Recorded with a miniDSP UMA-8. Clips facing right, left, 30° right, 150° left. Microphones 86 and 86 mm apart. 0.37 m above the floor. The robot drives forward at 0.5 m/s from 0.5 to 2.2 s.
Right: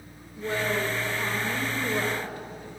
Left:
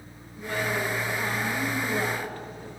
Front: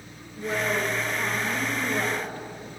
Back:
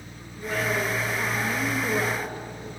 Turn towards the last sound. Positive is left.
turn(degrees=-145)